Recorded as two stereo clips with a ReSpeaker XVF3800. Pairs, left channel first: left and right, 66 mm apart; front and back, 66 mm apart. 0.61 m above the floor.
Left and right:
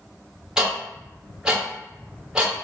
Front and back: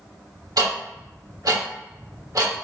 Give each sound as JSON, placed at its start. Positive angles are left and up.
{"t": 0.6, "sound": "ticking", "azimuth_deg": -165, "distance_m": 1.1}